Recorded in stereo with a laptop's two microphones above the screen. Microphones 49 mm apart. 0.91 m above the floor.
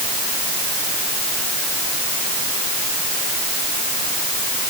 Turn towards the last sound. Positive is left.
No sound to turn to.